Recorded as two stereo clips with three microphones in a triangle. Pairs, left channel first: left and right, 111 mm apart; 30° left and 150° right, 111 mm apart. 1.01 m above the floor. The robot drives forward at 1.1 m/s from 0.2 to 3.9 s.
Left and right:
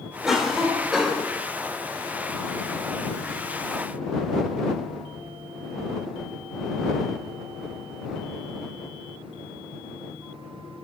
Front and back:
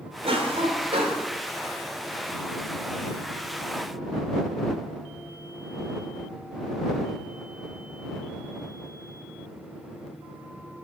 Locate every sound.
0.2 s a cough: 175° right, 3 m; by 1.3 s straight behind, 4 m